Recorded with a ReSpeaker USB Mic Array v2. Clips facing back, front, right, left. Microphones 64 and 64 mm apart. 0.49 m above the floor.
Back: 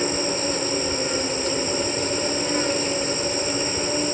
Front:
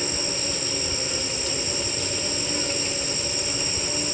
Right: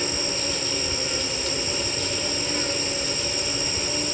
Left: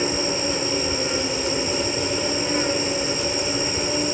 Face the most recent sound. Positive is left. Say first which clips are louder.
# back 6 dB, left 5 dB
turn(degrees=150)